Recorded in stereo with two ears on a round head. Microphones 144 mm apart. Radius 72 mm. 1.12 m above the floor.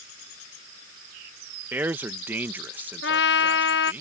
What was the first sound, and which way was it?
A man speaking, 10° right (ahead or behind).